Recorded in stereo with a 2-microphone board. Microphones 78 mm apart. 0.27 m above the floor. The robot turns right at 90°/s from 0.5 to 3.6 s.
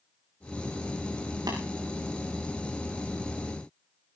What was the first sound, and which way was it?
Tapping, 65° right (ahead or behind).